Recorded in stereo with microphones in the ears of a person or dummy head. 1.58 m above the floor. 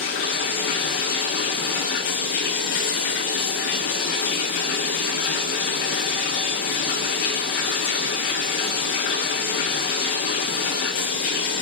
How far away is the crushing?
I don't hear crushing.